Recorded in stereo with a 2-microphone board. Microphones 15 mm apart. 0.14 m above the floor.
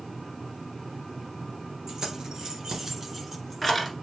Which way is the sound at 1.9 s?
50° right (ahead or behind).